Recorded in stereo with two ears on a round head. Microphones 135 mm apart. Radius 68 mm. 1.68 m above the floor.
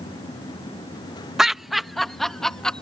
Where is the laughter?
5° right (ahead or behind); by 2.8 s 5° left (ahead or behind).